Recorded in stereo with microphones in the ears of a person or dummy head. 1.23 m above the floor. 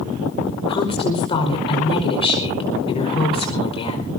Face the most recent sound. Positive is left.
turn(degrees=30)  # may be behind; listen again after turning